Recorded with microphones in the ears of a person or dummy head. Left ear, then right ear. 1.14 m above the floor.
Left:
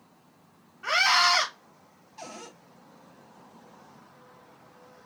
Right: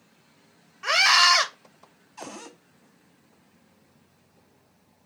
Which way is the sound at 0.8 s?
85° right.